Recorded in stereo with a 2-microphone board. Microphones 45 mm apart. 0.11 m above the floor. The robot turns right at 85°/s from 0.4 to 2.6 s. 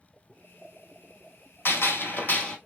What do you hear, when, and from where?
1.6 s a gunshot: 80° left, 1.4 m; by 2.6 s 160° left, 1.4 m